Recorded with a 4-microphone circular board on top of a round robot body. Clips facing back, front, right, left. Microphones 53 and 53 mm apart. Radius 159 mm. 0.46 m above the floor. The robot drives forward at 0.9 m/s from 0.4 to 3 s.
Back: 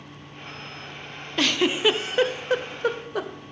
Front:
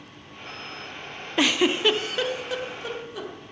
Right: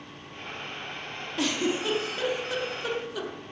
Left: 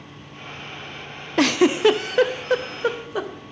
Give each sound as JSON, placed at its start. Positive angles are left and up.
{"t": 1.4, "sound": "a giggle", "azimuth_deg": 70, "distance_m": 1.0}